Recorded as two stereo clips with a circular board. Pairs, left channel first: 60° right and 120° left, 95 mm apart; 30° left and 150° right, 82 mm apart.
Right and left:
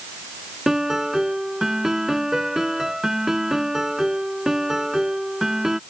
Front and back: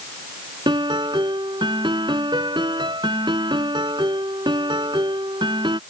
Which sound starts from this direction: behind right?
A piano, at 0.7 s.